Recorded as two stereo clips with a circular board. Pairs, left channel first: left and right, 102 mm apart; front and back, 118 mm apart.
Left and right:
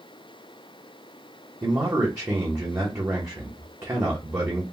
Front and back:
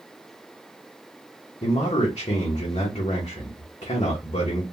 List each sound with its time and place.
1.6 s a man speaking: 25° right, 0.9 m